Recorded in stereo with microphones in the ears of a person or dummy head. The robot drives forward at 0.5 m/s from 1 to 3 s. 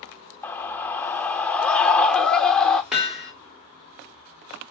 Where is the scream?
15° left (ahead or behind), 0.6 m; by 2.8 s 5° left (ahead or behind), 1.5 m.